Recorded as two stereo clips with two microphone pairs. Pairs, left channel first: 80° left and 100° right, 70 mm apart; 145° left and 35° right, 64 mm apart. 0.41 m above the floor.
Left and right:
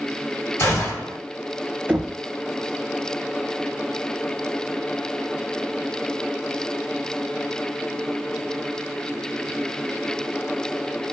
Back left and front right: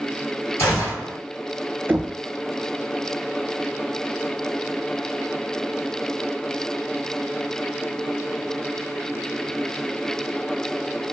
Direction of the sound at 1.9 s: 45° right.